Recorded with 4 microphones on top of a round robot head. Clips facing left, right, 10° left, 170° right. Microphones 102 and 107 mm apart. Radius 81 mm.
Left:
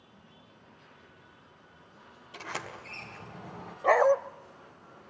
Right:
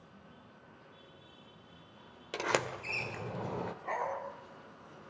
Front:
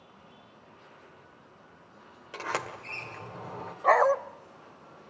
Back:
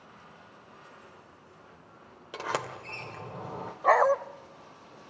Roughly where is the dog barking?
Left.